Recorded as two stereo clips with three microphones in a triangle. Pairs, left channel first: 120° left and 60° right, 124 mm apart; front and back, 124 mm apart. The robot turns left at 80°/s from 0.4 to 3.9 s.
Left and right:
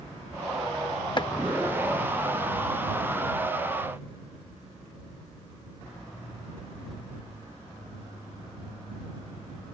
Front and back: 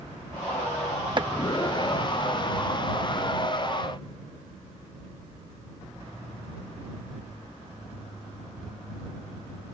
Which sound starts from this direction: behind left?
Chopping, at 1.2 s.